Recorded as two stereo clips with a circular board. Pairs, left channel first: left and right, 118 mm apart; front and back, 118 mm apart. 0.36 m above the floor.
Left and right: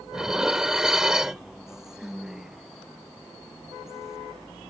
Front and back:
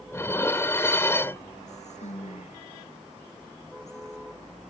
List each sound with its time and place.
0.1 s dishes clattering: 15° right
1.7 s whispering: 5° right